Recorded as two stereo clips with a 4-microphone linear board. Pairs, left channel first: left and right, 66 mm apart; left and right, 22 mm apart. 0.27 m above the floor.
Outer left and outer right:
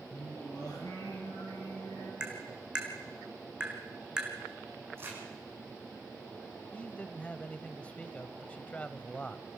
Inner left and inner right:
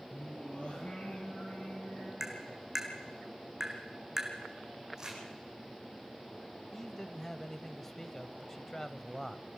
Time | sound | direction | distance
0.1 | singing | 75° left (ahead or behind) | 6.5 m
2.2 | tapping | 15° right (ahead or behind) | 3.5 m
5.0 | crumpling | 35° right (ahead or behind) | 7.5 m
6.7 | a man speaking | 20° left (ahead or behind) | 1.0 m